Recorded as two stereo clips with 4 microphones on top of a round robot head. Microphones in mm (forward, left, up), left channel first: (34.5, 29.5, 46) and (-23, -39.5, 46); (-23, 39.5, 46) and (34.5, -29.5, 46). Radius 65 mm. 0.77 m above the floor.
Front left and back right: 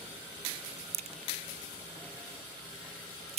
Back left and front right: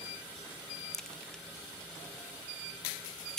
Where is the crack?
145° right.